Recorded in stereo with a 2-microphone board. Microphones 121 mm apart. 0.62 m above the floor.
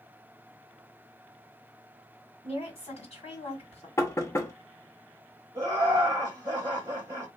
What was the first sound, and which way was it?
A woman speaking, 60° left (ahead or behind).